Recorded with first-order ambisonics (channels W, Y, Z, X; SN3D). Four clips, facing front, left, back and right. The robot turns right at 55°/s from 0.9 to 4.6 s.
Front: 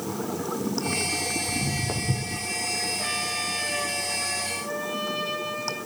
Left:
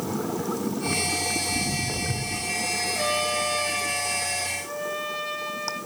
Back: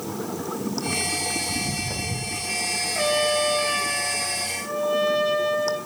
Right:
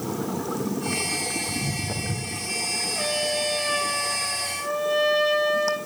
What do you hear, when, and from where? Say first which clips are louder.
1.5 s footsteps: left 2 dB, back 1 dB; 25° right, 5.5 m; by 2.5 s 30° left, 5.5 m
3.0 s a trumpet: even, back 7 dB; 160° left, 5.5 m; by 5.8 s 110° right, 5.5 m